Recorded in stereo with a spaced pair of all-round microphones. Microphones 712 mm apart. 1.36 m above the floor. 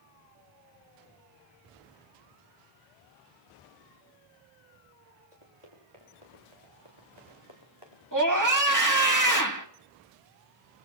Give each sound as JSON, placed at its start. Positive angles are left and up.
{"t": 5.3, "sound": "running footsteps", "side_deg": -45, "distance_m": 9.0}
{"t": 8.1, "sound": "a scream", "side_deg": -25, "distance_m": 2.0}